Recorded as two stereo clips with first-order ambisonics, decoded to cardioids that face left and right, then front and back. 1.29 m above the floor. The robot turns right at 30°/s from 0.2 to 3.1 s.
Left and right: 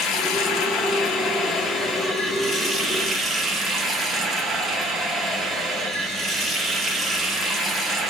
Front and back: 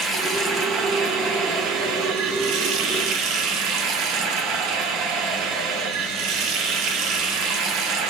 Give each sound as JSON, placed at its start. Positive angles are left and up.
{"t": 0.0, "sound": "running water", "azimuth_deg": 115, "distance_m": 0.9}